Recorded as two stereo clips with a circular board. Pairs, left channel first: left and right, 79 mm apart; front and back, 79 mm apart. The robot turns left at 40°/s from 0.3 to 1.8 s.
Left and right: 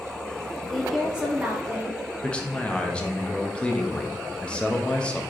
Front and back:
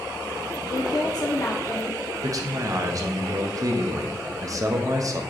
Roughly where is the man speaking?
Behind.